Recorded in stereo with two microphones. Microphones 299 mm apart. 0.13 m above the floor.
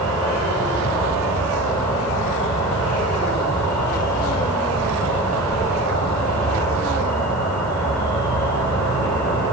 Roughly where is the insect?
Centre.